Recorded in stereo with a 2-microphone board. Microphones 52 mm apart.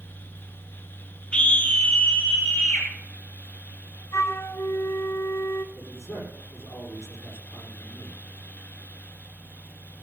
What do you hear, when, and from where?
1.3 s a scream: 25° left (ahead or behind), 1.1 m; by 2.9 s 50° left (ahead or behind), 2 m
4.1 s a flute: 65° left (ahead or behind), 0.7 m
5.8 s a man speaking: 75° left (ahead or behind), 6 m